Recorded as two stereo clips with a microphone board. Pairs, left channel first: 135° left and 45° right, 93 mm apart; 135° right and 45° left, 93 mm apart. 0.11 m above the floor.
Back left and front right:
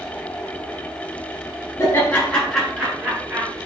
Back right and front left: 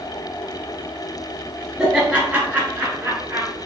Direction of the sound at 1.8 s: 115° left.